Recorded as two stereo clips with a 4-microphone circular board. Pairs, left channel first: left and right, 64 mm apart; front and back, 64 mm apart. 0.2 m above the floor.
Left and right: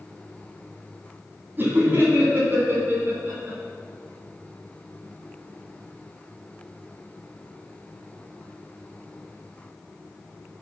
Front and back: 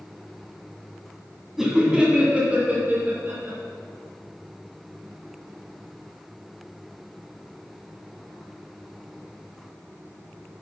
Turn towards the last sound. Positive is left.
turn(degrees=-140)